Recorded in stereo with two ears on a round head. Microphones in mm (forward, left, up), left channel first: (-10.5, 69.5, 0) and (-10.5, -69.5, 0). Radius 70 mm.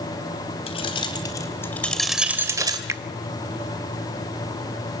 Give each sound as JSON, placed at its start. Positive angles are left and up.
{"t": 0.7, "sound": "keys jangling", "side_deg": 35, "distance_m": 3.0}
{"t": 2.9, "sound": "a finger snap", "side_deg": -20, "distance_m": 0.8}